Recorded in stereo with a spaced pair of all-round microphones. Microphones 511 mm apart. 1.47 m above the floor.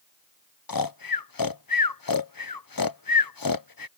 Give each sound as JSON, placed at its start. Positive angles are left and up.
{"t": 0.7, "sound": "snoring", "side_deg": 45}